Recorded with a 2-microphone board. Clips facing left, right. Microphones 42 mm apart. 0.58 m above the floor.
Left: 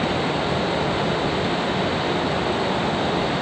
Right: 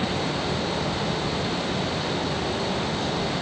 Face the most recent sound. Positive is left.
No sound to turn to.